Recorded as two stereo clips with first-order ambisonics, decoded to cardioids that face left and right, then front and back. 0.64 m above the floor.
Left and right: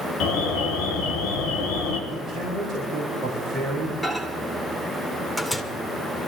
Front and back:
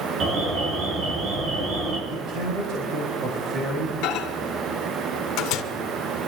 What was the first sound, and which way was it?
An alarm, 120° left.